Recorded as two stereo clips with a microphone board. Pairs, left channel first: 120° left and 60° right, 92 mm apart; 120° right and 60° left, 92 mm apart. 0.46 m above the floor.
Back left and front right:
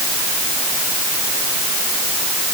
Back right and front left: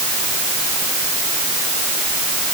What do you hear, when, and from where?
Only background noise.